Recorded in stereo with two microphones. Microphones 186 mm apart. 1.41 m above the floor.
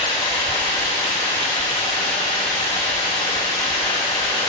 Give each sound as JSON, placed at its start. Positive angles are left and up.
{"t": 0.0, "sound": "running water", "side_deg": 35, "distance_m": 4.5}